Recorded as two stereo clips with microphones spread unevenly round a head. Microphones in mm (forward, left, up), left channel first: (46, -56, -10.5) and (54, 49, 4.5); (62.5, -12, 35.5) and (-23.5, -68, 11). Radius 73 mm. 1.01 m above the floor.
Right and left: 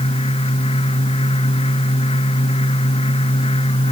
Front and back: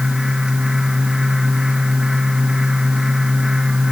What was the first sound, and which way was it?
A fan, 65° right.